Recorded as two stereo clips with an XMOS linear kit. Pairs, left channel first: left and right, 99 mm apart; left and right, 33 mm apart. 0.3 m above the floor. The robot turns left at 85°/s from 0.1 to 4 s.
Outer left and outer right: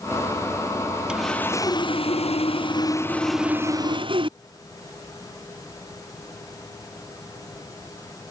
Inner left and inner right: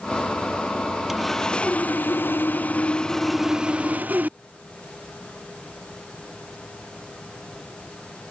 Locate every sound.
1.1 s sawing: 170° right; by 4.4 s 60° right